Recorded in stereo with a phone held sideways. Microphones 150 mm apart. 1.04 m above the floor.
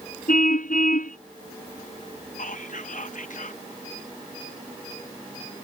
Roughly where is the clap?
I don't hear a clap.